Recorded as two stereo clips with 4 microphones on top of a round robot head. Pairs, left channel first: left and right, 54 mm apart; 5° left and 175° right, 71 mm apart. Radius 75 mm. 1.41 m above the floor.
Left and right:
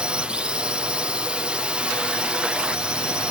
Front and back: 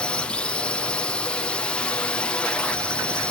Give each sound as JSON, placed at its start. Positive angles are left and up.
{"t": 0.0, "sound": "a drone", "azimuth_deg": -50}